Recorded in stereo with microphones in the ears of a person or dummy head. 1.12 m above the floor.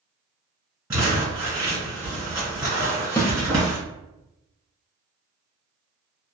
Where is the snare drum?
15° left (ahead or behind), 0.6 m.